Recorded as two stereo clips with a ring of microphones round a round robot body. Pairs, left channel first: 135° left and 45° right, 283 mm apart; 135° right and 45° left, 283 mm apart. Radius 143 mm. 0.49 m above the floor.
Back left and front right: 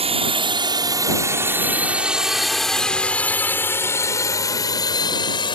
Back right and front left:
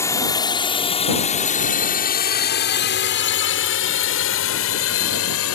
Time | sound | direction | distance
0.0 | a drone | 70° right | ?